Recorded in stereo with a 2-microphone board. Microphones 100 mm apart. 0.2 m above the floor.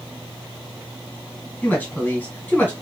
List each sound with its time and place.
1.6 s a woman speaking: 15° left (ahead or behind), 1.9 m